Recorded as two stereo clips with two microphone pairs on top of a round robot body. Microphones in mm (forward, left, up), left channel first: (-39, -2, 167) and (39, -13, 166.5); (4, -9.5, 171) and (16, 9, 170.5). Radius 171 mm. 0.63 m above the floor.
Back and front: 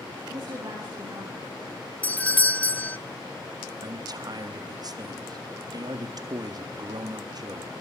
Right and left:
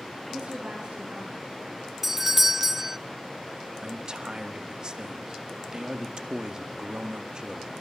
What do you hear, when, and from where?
0.3 s a woman speaking: 25° left, 9.5 m
2.0 s a doorbell: 120° left, 1.2 m
3.8 s a man speaking: 10° left, 2.0 m